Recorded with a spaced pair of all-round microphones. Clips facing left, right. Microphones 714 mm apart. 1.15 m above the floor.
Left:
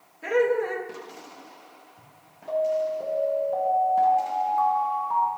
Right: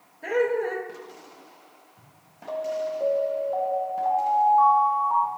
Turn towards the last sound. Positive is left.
turn(degrees=50)  # may be behind; listen again after turning